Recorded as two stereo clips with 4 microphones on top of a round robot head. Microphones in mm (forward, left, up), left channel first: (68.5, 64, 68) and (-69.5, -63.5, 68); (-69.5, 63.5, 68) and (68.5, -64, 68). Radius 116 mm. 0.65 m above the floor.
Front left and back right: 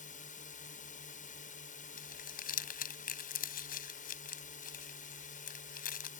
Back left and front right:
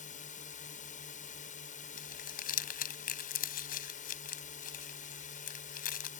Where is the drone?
90° left.